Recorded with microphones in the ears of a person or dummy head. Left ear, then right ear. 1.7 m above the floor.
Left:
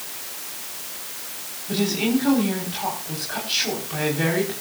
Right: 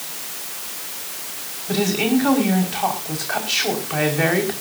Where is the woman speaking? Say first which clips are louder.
Right 3 dB; 30° right (ahead or behind), 5 m.